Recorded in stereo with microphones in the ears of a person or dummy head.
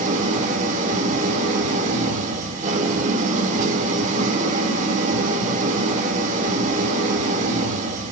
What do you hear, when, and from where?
0.0 s an engine running: 45° right (ahead or behind), 4 m